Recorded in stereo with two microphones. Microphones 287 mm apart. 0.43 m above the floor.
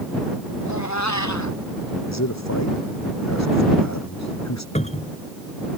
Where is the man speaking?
70° left (ahead or behind).